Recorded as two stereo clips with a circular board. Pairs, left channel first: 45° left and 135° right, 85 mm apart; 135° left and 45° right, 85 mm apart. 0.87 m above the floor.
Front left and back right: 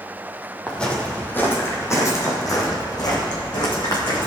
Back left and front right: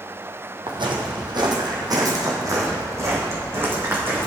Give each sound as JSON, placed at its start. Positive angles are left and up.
{"t": 0.7, "sound": "footsteps", "azimuth_deg": -35, "distance_m": 2.0}